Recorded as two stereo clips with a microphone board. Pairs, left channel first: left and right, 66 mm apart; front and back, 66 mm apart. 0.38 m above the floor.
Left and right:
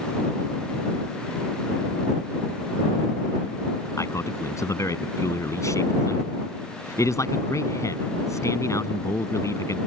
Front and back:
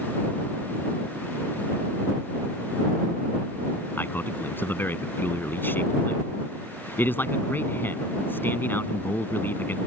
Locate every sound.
4.0 s a man speaking: 55° left